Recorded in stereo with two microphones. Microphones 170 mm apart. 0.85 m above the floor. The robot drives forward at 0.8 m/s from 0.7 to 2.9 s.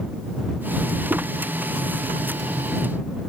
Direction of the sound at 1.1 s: 10° right (ahead or behind).